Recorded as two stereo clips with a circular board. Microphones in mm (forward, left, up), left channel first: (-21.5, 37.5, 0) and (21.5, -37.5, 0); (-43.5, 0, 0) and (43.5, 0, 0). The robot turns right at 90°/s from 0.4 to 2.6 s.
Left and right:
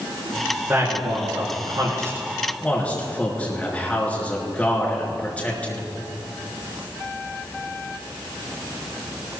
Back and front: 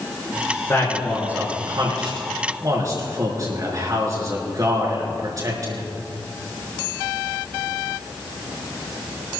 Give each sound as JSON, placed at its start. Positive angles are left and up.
{"t": 0.7, "sound": "a man speaking", "azimuth_deg": -125, "distance_m": 4.5}